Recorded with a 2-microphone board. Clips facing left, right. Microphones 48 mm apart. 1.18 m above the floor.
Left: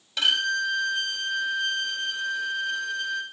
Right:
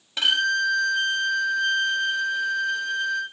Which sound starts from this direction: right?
A violin, at 0.2 s.